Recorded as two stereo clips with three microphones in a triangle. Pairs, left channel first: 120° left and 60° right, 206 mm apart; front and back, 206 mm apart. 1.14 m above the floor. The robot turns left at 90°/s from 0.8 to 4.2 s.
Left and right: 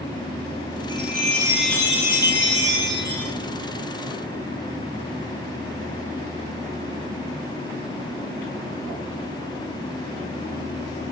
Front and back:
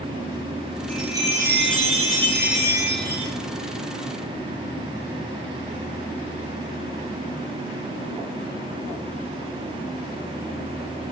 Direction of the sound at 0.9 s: 80° right.